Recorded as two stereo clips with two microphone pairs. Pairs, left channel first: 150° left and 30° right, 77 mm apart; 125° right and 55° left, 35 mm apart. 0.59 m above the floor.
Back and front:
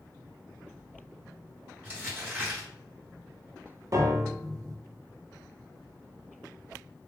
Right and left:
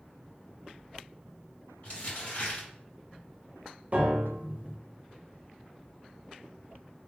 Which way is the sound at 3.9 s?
10° left.